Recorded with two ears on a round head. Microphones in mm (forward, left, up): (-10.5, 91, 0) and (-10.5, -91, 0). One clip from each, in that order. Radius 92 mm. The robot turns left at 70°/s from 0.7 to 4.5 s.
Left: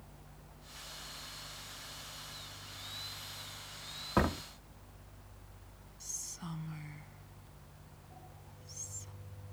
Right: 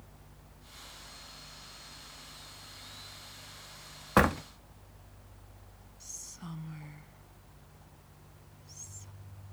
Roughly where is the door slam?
Right.